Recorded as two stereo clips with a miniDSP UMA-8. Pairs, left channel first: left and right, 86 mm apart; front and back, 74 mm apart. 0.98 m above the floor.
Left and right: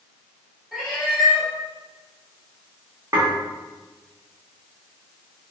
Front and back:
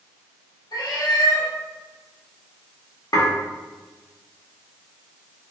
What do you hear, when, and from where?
0.7 s a cat meowing: 10° right, 1.8 m
3.1 s dishes clattering: 30° right, 1.3 m